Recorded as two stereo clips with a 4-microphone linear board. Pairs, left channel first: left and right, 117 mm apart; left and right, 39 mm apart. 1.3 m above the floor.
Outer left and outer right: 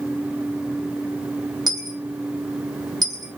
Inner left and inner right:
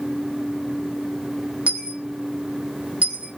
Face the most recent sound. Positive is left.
turn(degrees=-35)  # may be behind; listen again after turning